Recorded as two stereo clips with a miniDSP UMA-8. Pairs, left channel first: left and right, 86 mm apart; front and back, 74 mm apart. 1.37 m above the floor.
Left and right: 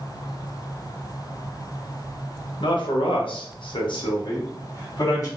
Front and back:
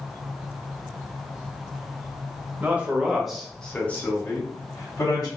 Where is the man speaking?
115° left, 0.9 m; by 5.3 s 45° left, 1.4 m.